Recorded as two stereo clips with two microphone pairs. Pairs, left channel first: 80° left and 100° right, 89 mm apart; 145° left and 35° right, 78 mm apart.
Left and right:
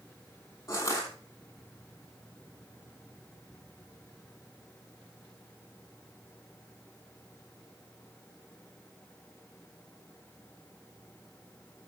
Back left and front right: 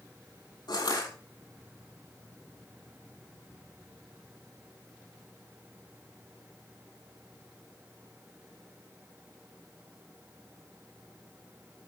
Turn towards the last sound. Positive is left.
turn(degrees=135)